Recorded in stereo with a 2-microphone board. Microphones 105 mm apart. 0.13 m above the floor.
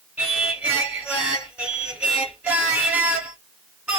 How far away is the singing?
About 1.5 m.